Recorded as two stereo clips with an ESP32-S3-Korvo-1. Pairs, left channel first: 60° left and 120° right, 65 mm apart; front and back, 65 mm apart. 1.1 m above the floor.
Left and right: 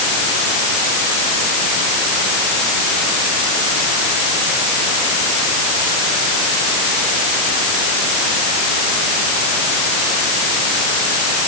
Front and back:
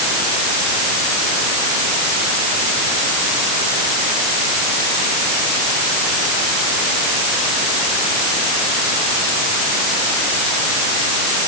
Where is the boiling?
No boiling in this recording.